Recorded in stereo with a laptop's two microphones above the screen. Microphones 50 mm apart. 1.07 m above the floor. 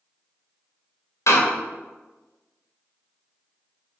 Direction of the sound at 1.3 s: 75° left (ahead or behind).